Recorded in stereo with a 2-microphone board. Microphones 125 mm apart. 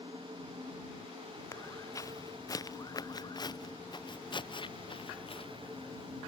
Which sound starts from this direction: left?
Footsteps, at 1.5 s.